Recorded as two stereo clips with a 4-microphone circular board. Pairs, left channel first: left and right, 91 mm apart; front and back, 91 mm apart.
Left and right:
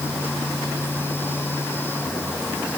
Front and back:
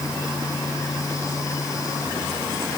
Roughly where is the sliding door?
I don't hear a sliding door.